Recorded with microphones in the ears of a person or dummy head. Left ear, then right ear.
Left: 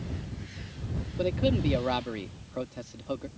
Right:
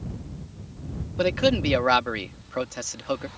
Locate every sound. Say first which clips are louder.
1.2 s a man speaking: right 6 dB; 55° right (ahead or behind)